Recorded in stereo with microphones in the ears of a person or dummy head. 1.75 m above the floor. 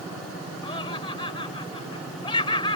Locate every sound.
0.6 s laughter: 20° left (ahead or behind)